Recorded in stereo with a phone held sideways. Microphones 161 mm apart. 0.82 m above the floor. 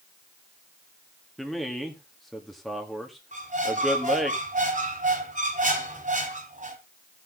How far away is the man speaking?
About 1.8 m.